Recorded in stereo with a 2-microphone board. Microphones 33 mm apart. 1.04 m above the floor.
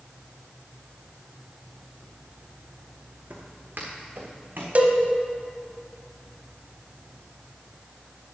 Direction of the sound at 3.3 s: 55° right (ahead or behind).